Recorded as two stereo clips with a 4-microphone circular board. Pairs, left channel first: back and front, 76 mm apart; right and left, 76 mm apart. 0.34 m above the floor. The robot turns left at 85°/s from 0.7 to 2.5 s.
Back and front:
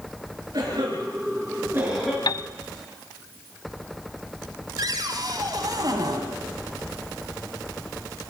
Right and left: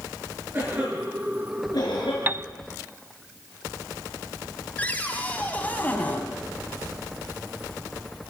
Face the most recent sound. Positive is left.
turn(degrees=-20)